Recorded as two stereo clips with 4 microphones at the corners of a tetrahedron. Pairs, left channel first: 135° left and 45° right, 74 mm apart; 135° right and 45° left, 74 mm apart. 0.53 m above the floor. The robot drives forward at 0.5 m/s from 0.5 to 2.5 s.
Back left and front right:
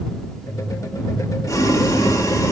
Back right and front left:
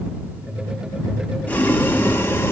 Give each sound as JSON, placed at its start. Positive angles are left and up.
{"t": 1.5, "sound": "boiling", "azimuth_deg": 160, "distance_m": 1.1}